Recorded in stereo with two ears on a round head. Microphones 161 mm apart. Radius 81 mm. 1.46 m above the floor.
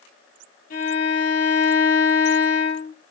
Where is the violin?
50° left (ahead or behind), 4 m.